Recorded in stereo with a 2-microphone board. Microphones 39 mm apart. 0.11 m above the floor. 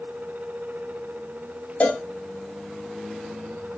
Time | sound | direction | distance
1.8 | a cowbell | 40° left (ahead or behind) | 0.7 m